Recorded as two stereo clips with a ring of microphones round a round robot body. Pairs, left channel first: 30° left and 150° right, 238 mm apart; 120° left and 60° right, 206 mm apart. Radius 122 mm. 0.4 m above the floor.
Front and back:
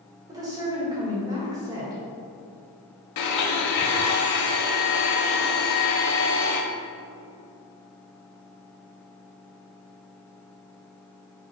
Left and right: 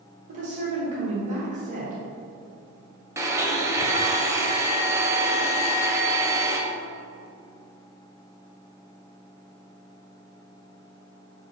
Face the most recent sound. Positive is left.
turn(degrees=15)